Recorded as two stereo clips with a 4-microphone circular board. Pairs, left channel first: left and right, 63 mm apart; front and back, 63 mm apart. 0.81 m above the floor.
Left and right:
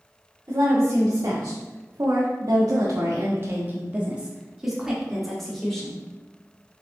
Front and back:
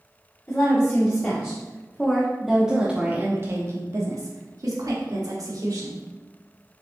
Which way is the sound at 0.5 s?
50° right.